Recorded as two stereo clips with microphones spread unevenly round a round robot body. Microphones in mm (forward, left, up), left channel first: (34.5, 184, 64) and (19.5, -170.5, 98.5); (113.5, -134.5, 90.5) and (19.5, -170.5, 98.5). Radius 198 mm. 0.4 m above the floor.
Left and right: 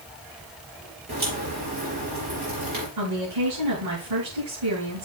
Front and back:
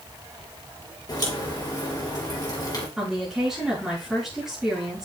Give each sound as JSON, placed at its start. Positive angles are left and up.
{"t": 1.1, "sound": "a crack", "azimuth_deg": -30, "distance_m": 5.0}
{"t": 3.0, "sound": "a woman speaking", "azimuth_deg": -75, "distance_m": 5.0}